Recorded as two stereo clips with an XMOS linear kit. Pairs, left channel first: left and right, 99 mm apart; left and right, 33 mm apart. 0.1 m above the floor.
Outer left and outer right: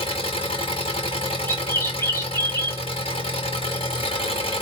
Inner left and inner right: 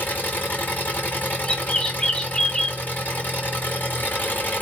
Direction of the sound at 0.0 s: 80° left.